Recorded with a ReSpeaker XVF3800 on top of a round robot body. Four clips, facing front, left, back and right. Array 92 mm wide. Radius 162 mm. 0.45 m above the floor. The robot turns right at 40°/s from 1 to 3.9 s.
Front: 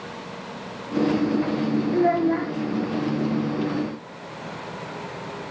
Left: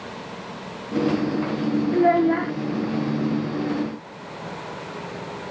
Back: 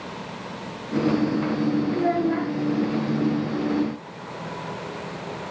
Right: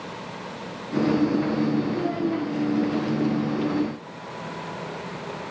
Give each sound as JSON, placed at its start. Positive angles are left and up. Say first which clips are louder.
{"t": 1.9, "sound": "a child speaking", "louder": "left 7 dB, front 2 dB", "azimuth_deg": 60, "distance_m": 1.6}